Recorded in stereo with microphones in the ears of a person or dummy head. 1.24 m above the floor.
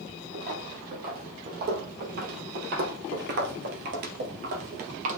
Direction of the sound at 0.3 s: 45° right (ahead or behind).